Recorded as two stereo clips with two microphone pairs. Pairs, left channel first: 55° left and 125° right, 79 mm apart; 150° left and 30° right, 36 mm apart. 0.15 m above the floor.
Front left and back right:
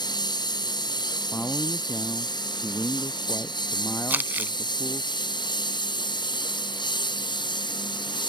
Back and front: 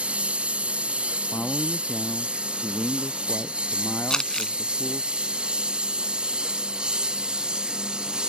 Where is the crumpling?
165° right.